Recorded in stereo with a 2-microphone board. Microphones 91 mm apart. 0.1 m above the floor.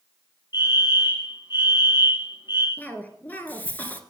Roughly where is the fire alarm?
Left.